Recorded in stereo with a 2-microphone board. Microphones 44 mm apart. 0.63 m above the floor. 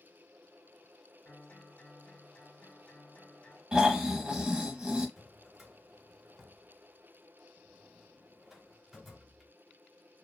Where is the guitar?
45° left (ahead or behind), 1.8 m.